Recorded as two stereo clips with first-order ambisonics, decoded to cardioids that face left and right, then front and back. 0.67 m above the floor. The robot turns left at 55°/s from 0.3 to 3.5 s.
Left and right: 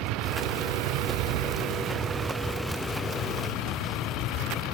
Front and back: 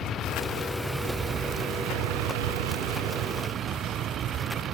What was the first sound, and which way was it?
A vehicle, 60° right.